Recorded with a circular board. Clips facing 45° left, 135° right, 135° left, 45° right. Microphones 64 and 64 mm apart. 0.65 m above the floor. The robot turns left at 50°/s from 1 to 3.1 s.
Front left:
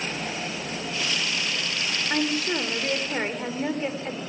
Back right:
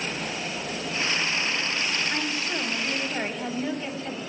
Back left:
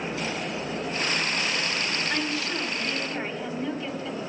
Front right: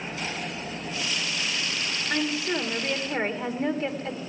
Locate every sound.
2.1 s a woman speaking: 40° left, 1.9 m; by 4.2 s 10° right, 1.9 m